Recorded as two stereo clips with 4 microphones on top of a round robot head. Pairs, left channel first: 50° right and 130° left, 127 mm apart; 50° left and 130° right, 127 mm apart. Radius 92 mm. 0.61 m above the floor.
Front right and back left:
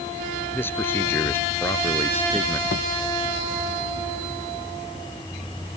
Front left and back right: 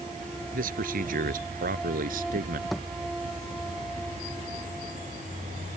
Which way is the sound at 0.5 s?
125° right.